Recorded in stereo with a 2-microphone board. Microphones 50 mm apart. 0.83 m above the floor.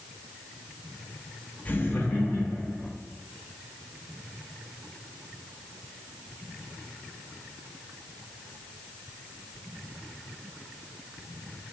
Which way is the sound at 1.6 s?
25° left (ahead or behind).